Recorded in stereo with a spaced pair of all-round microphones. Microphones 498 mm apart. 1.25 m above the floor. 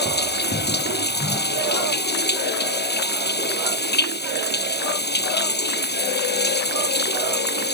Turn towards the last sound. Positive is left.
turn(degrees=20)  # may be behind; listen again after turning